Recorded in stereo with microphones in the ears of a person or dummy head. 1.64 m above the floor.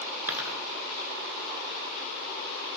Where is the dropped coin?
10° right (ahead or behind), 9.5 m.